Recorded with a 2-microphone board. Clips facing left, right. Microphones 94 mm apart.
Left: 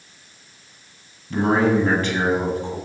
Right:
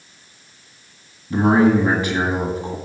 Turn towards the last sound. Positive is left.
turn(degrees=-15)  # may be behind; listen again after turning